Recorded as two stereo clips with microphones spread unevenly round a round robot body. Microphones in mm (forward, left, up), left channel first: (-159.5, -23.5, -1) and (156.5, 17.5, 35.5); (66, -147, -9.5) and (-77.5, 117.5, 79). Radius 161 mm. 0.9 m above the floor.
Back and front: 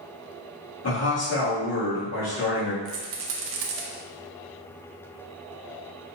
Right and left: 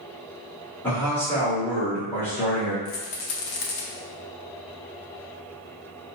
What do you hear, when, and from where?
0.8 s a man speaking: 140° right, 1.8 m
2.9 s a rattle: 5° right, 0.7 m